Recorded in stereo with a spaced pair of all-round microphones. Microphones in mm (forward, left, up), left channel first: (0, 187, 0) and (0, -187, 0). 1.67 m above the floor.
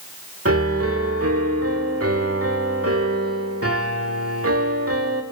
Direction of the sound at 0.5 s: 40° right (ahead or behind).